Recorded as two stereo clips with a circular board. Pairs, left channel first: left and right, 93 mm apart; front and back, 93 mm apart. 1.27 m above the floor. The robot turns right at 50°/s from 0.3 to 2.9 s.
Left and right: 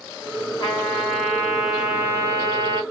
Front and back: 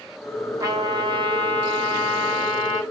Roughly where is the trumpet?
Behind left.